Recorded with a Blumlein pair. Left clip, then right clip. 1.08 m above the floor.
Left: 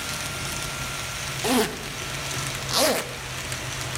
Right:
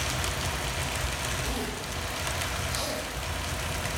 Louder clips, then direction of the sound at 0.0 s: Even; 55° right.